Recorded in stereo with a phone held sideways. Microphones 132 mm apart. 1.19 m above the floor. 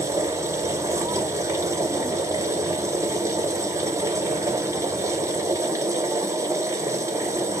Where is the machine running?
25° right (ahead or behind), 0.7 m.